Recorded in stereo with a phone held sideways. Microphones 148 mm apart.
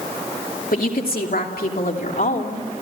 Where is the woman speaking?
75° left (ahead or behind), 2.5 m; by 2.6 s 65° left (ahead or behind), 3.5 m.